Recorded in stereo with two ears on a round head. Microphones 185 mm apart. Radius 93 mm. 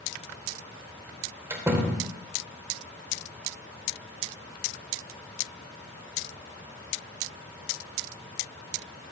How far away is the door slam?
About 0.9 m.